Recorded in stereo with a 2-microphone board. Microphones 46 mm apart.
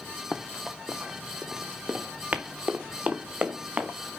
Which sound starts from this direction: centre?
Running footsteps, at 0.3 s.